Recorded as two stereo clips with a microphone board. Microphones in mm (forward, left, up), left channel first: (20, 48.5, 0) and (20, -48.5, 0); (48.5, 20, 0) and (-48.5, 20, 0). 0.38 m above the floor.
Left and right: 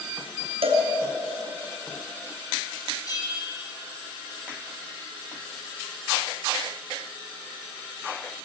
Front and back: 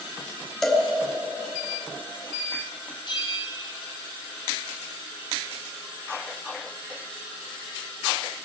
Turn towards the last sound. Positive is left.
turn(degrees=40)